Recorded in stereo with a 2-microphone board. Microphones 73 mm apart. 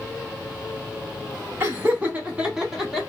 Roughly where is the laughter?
Right.